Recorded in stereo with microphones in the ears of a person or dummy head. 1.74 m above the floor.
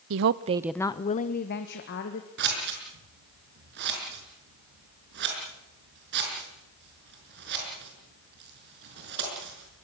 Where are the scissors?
60° right (ahead or behind), 6 m.